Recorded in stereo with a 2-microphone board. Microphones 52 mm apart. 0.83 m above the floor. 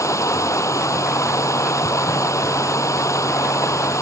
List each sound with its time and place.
0.0 s running water: 70° left (ahead or behind)